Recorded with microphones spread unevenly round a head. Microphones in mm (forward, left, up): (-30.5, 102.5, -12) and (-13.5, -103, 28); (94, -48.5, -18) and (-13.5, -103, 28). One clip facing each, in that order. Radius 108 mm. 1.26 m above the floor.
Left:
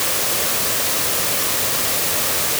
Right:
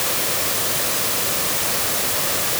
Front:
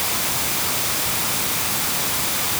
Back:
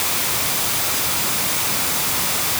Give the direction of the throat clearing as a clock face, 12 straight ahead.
I don't hear throat clearing.